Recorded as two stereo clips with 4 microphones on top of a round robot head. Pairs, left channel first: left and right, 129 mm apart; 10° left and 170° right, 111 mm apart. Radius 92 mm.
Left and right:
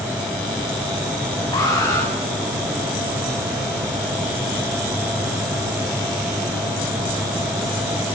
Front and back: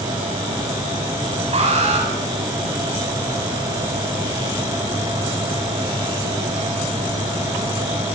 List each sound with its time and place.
1.5 s an alarm: 160° left, 10 m